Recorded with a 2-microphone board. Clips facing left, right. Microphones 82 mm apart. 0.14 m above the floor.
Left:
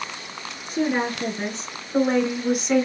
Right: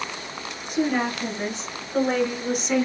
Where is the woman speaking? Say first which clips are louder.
Even; 40° left (ahead or behind), 2.5 m; by 2.9 s 5° right (ahead or behind), 1.1 m.